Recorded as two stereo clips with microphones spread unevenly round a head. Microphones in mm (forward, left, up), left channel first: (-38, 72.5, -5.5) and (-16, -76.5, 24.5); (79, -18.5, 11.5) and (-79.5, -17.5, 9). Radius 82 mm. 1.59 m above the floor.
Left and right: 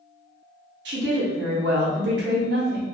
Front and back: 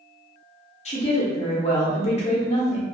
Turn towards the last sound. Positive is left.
turn(degrees=-55)